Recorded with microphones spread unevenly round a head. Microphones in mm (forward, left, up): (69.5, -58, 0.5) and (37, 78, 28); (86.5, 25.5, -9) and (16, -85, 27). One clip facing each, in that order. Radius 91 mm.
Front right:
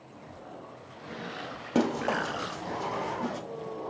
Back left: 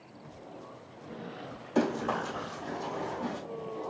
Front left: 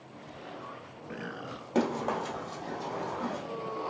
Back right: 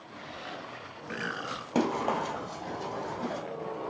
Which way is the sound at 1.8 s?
65° right.